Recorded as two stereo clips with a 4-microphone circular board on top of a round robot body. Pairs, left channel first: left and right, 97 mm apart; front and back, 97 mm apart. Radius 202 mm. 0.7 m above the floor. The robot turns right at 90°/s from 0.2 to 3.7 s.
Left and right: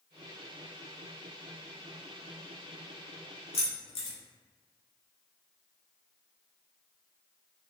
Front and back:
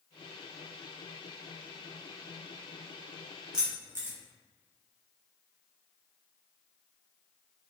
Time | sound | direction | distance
3.5 | keys jangling | 95° left | 0.9 m